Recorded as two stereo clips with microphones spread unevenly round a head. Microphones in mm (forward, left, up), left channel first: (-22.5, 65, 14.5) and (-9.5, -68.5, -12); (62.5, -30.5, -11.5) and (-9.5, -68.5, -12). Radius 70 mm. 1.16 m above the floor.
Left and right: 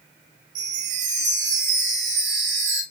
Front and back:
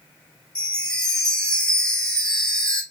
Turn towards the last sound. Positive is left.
turn(degrees=-50)